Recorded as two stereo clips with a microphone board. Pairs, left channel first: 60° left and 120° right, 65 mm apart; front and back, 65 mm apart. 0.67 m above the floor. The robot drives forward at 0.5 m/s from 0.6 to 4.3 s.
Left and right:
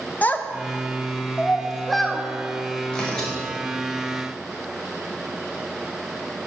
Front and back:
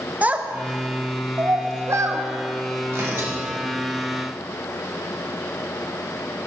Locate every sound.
0.2 s a child speaking: 120° left, 0.9 m; by 2.2 s 150° left, 1.5 m
2.9 s tearing paper: 135° left, 3.5 m